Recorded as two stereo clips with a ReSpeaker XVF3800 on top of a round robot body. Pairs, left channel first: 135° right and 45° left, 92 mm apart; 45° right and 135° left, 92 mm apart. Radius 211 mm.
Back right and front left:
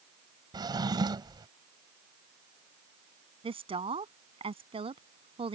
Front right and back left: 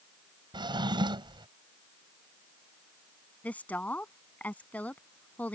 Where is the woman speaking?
30° left.